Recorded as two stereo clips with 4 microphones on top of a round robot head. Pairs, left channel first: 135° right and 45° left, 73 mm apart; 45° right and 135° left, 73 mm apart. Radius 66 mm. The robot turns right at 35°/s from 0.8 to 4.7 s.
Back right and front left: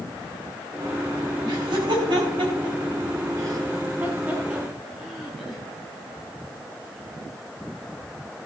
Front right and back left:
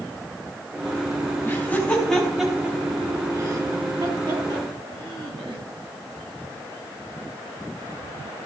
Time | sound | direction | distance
1.4 | laughter | 15° left | 5 m